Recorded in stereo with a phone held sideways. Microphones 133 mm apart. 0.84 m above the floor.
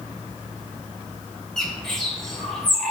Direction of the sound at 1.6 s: 5° left (ahead or behind).